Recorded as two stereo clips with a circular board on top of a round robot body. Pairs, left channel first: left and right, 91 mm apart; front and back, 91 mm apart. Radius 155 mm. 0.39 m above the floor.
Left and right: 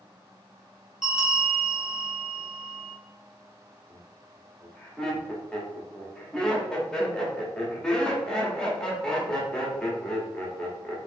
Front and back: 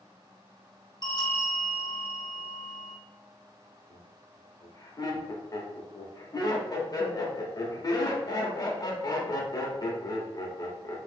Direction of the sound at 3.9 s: 10° left.